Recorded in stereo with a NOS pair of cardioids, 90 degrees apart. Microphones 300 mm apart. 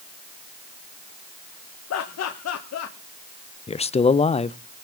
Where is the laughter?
60° left, 1.5 m.